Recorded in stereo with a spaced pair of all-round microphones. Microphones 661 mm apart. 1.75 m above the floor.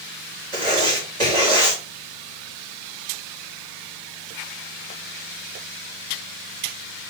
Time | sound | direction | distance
0.5 | writing | 65° right (ahead or behind) | 4 m